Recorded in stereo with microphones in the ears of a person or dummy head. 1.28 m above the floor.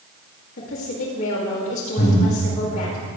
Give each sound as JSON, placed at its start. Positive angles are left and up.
{"t": 0.6, "sound": "a woman speaking", "side_deg": 65, "distance_m": 2.5}
{"t": 2.0, "sound": "breathing", "side_deg": 45, "distance_m": 3.0}